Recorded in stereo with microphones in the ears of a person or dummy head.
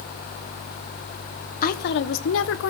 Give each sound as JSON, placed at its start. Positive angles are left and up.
{"t": 1.6, "sound": "a woman speaking", "side_deg": 55, "distance_m": 1.2}